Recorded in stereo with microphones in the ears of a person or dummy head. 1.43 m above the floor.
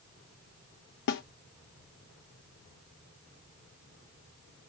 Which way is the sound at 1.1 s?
60° left (ahead or behind).